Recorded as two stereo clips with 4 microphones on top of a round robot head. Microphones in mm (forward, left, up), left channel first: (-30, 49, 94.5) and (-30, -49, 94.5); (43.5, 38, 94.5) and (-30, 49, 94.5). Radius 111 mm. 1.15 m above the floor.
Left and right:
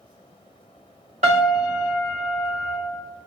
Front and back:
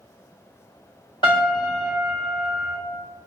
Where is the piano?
60° right, 0.6 m.